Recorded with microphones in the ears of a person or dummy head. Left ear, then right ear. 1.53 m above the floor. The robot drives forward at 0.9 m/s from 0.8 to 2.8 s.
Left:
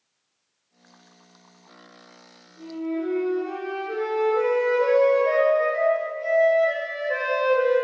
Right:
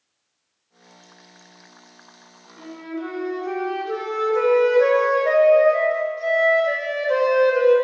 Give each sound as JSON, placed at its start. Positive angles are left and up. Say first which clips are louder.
{"t": 2.6, "sound": "a flute", "louder": "left 3 dB", "side_deg": -65, "distance_m": 3.5}